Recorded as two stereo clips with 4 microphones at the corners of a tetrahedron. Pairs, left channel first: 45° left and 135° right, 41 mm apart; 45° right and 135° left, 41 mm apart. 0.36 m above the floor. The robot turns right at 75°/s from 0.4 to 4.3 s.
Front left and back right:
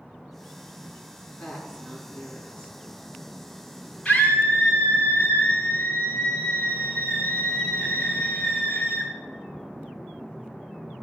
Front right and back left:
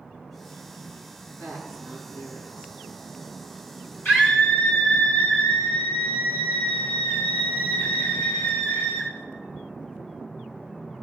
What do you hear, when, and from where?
1.4 s a woman speaking: 110° left, 4 m; by 2.8 s 145° right, 4 m
4.0 s a scream: 15° right, 3.5 m; by 9.1 s 5° left, 3.5 m